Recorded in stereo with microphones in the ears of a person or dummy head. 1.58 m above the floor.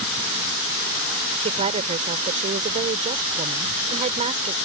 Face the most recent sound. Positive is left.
turn(degrees=-30)  # may be behind; listen again after turning